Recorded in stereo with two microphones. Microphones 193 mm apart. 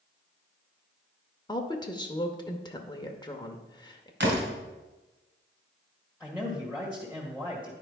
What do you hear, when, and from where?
1.5 s a woman speaking: 20° left (ahead or behind), 0.8 m
4.2 s a door slam: 60° right (ahead or behind), 1.8 m
6.2 s a man speaking: 5° right (ahead or behind), 1.7 m